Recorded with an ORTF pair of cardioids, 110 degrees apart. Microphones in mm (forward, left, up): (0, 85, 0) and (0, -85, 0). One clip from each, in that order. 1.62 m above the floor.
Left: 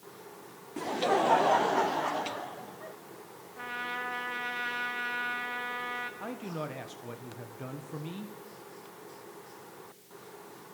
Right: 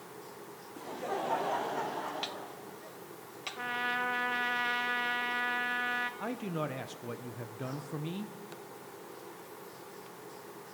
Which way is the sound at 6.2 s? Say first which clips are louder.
Right 2 dB; 10° right.